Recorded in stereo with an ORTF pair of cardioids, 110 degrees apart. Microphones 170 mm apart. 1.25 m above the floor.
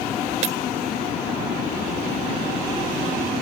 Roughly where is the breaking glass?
Ahead right.